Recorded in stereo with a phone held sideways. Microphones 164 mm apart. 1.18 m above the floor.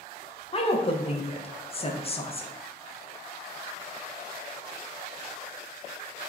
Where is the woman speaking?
35° left (ahead or behind), 0.5 m.